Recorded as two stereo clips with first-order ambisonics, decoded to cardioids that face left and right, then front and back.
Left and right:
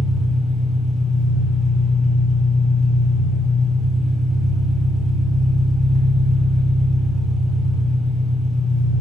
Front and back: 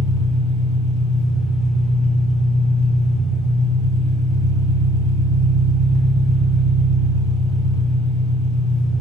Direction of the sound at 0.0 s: 30° right.